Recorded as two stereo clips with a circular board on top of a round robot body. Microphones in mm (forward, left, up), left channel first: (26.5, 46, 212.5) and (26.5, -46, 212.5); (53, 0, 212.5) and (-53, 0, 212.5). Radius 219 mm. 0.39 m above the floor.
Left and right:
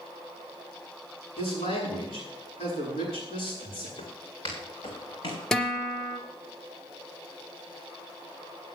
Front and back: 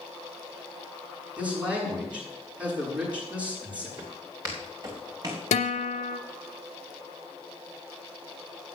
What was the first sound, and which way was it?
A man speaking, 100° left.